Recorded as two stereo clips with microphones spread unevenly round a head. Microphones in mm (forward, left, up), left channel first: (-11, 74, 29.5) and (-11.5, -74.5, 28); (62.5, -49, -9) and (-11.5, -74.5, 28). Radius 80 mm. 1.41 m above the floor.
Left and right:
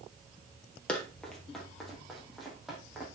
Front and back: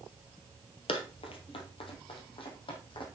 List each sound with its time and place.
0.9 s running footsteps: 10° left, 2 m; by 3.1 s straight ahead, 4.5 m